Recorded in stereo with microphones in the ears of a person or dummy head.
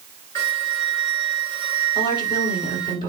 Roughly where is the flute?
Centre.